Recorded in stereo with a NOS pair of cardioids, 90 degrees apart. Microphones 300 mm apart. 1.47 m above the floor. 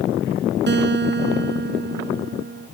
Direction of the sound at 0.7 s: 35° right.